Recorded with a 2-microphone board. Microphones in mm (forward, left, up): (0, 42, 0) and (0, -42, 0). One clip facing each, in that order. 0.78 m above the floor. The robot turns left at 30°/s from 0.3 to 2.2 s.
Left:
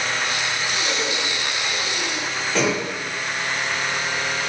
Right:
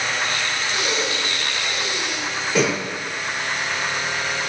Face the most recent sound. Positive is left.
turn(degrees=-15)  # may be behind; listen again after turning